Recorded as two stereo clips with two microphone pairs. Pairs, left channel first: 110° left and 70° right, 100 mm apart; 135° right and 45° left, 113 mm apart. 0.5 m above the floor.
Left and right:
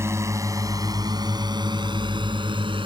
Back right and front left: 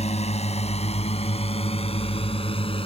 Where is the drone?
135° right; by 2.9 s 100° right.